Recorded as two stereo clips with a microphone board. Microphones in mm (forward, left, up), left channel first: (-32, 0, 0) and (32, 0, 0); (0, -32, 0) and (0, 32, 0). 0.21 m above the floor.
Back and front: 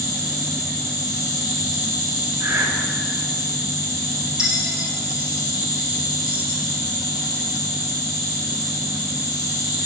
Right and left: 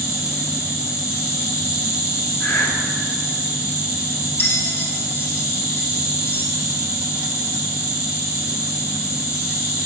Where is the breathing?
50° right, 1.5 m.